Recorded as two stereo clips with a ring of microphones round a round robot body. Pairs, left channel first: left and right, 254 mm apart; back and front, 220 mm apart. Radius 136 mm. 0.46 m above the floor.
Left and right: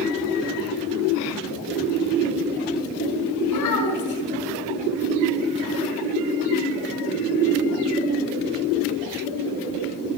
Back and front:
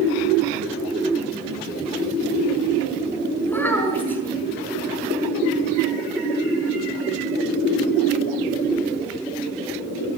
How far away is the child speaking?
About 5.5 m.